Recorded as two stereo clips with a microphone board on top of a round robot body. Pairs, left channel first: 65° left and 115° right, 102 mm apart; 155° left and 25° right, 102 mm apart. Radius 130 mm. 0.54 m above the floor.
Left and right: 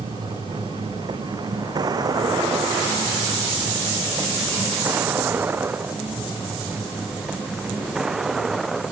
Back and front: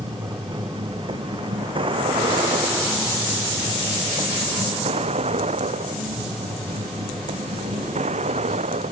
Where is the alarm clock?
No alarm clock in this recording.